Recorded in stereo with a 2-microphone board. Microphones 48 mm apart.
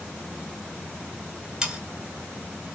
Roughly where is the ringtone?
I don't hear a ringtone.